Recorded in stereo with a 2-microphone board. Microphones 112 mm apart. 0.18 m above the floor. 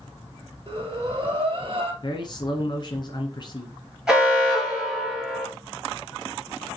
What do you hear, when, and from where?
0.7 s breathing: 55° right (ahead or behind), 2 m
2.0 s a man speaking: 45° left (ahead or behind), 1.5 m
4.1 s an alarm: 5° right (ahead or behind), 4 m